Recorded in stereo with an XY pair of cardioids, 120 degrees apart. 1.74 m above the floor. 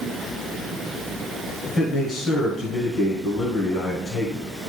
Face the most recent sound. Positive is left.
turn(degrees=35)